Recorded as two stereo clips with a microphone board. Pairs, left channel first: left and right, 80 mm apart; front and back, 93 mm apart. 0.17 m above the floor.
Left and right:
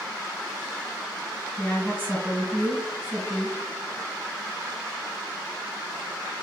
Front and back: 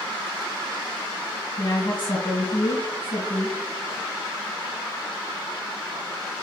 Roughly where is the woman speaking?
Ahead left.